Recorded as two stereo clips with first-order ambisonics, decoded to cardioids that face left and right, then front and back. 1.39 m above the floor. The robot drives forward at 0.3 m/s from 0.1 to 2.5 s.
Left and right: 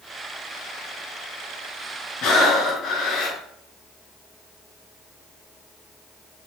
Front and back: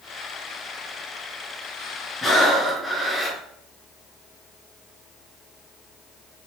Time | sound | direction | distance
2.2 | breathing | 85° left | 1.0 m